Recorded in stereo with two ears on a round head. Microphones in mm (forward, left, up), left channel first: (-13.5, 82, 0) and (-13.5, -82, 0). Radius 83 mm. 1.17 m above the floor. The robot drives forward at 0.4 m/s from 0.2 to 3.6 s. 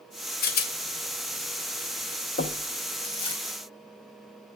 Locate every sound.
0.4 s a rattle: 50° left (ahead or behind), 0.7 m; by 3.4 s 30° left (ahead or behind), 1.1 m
2.4 s knocking: 55° left (ahead or behind), 0.8 m; by 2.7 s 60° left (ahead or behind), 0.8 m